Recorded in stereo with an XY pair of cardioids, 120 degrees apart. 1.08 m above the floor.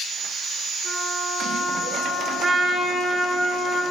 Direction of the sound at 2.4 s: 30° right.